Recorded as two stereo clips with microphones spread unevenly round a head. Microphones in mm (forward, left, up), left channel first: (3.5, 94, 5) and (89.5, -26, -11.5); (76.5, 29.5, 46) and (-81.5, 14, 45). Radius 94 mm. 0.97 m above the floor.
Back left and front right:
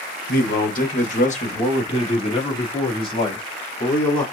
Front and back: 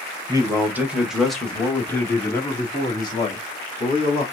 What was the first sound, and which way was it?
A man speaking, 120° left.